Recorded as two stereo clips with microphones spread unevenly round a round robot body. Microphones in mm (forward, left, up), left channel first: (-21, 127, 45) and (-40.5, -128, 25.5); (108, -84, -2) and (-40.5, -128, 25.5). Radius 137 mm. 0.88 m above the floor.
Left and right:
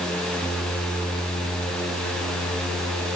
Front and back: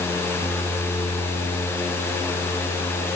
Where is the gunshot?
No gunshot in this recording.